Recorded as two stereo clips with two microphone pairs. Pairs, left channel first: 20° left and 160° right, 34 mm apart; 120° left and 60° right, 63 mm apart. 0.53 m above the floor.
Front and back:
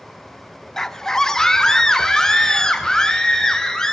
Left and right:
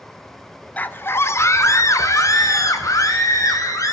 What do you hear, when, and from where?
0.8 s a scream: 85° left, 0.7 m; by 3.9 s 95° left, 3.5 m